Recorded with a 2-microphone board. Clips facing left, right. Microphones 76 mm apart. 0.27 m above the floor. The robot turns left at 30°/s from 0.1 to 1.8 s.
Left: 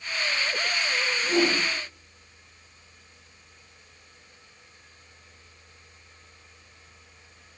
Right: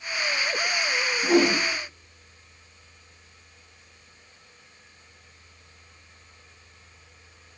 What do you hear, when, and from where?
1.2 s a whoosh: 90° right, 4.5 m; by 1.6 s 75° right (ahead or behind), 4.5 m